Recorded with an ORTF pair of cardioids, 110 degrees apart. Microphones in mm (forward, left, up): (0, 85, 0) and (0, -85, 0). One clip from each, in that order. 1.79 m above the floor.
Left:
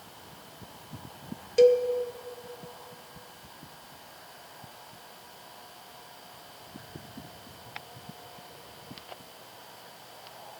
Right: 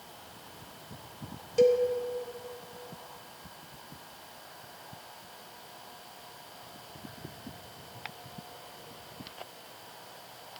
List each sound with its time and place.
1.6 s a cowbell: 15° left, 0.5 m